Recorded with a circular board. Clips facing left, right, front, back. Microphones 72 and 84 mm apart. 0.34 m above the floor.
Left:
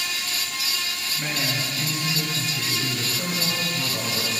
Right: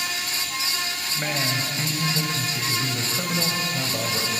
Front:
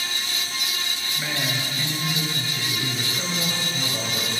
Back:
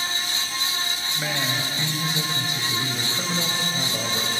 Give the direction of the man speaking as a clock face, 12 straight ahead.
4 o'clock.